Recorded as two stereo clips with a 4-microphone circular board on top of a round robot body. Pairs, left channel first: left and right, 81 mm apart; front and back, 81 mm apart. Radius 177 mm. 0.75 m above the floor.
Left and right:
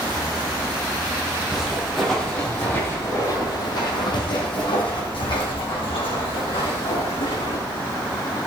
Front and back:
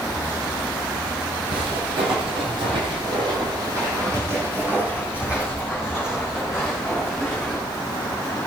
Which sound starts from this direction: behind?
Footsteps, at 1.5 s.